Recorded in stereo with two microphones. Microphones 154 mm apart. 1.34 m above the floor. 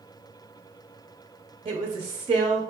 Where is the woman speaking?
35° right (ahead or behind), 0.8 m.